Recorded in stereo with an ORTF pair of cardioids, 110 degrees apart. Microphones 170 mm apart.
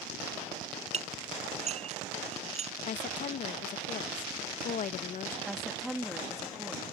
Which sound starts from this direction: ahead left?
A woman speaking, at 2.9 s.